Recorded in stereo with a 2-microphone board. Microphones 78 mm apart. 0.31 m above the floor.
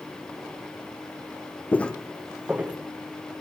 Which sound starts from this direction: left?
Footsteps, at 1.7 s.